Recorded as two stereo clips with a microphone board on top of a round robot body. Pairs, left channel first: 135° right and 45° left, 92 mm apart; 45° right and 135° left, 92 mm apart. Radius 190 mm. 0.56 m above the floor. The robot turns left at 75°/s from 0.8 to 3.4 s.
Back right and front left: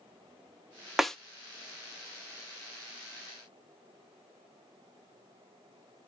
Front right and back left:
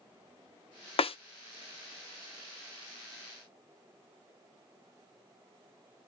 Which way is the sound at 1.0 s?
40° right.